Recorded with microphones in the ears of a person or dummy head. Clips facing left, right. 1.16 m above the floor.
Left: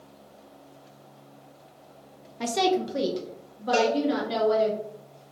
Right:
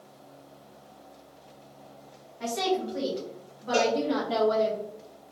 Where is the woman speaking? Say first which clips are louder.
Left 3 dB; 55° left (ahead or behind), 0.5 m; by 4.7 s 40° left (ahead or behind), 1.7 m.